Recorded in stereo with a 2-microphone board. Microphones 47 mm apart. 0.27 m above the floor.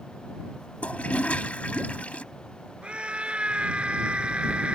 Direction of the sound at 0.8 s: 30° left (ahead or behind).